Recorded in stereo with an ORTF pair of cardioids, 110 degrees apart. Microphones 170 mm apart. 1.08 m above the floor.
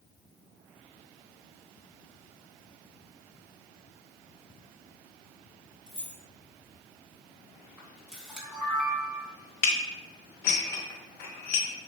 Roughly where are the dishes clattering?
Ahead left.